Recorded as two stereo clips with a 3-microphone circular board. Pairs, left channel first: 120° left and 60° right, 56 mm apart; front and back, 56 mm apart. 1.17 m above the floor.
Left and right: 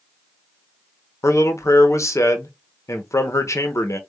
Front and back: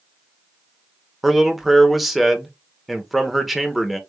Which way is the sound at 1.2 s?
90° left.